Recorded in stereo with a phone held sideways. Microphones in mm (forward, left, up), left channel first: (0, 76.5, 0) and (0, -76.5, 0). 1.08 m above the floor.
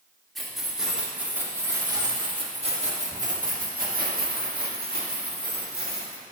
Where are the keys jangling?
Centre (ahead or behind), 2 m; by 6.2 s 85° right, 3 m.